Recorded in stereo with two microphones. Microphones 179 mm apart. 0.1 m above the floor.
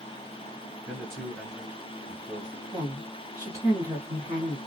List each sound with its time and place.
0.9 s a man speaking: 5° left (ahead or behind), 1.6 m; by 2.6 s 20° right (ahead or behind), 1.3 m
2.7 s a woman speaking: 20° right (ahead or behind), 1.6 m